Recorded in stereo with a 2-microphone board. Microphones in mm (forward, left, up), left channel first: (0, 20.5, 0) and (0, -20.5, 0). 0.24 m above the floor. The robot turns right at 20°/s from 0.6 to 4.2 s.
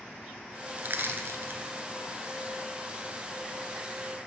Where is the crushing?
45° right (ahead or behind), 1.4 m; by 1.6 s 60° right (ahead or behind), 1.4 m.